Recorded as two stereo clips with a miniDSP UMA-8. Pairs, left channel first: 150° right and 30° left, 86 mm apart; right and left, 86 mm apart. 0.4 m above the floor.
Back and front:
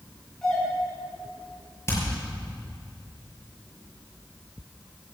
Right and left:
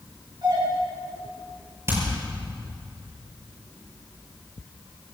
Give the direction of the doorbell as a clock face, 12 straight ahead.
8 o'clock.